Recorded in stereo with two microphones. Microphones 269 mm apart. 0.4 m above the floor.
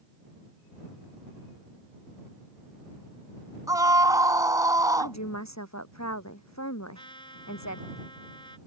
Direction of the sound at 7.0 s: 20° left (ahead or behind).